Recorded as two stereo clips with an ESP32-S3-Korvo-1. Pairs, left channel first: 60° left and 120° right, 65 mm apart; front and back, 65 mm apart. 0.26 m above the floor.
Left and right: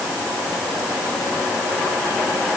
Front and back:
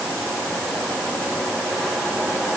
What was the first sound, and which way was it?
Only background noise.